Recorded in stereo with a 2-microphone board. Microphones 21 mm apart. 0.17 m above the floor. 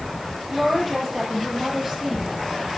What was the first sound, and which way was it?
A woman speaking, centre (ahead or behind).